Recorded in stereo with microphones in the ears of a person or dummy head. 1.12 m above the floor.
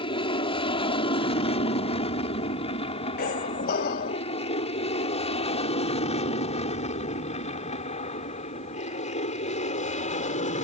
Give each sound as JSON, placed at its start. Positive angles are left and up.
{"t": 0.0, "sound": "an aircraft", "side_deg": 25}
{"t": 3.2, "sound": "a squeak", "side_deg": 45}